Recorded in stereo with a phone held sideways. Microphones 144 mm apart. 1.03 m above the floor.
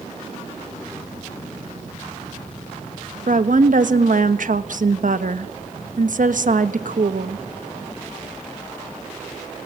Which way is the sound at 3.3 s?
65° right (ahead or behind).